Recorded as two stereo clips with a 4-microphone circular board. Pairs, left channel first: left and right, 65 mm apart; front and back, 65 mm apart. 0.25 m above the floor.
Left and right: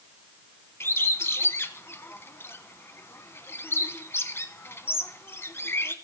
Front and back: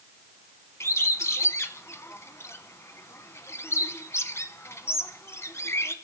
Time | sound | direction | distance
0.8 | a bird | 40° left | 0.7 m